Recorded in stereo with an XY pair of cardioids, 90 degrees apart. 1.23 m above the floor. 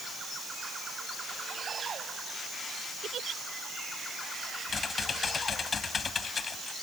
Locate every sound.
3.0 s a giggle: 65° right
4.7 s typing on a keyboard: 45° left